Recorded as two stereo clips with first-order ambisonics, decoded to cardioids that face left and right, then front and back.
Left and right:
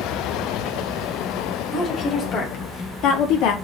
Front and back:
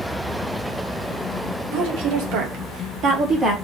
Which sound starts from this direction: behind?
A woman speaking, at 1.7 s.